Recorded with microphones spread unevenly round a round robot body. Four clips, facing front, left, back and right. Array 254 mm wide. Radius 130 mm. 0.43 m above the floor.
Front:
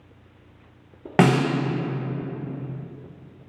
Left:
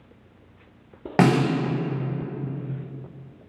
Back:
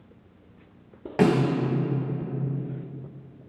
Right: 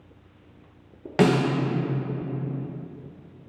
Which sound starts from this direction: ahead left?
A snare drum, at 1.2 s.